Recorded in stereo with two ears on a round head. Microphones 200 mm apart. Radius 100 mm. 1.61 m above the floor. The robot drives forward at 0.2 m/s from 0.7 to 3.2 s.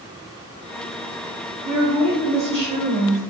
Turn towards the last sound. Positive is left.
turn(degrees=-30)  # may be behind; listen again after turning